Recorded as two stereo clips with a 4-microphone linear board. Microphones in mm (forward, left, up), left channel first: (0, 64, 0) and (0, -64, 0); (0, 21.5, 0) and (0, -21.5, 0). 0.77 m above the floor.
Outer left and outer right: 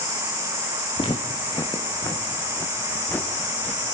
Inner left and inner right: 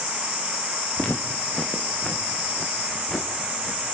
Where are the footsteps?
40° left (ahead or behind), 3 m; by 3.8 s 10° left (ahead or behind), 4 m.